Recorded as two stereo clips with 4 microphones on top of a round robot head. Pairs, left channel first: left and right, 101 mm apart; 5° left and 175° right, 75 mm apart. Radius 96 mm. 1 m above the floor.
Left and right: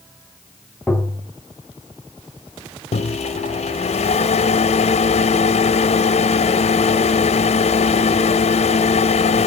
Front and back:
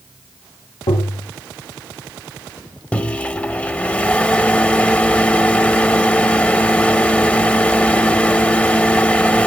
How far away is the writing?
I don't hear writing.